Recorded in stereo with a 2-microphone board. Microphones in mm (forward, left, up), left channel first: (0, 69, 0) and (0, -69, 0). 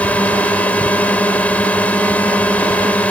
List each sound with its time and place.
0.0 s a drone: 10° left (ahead or behind)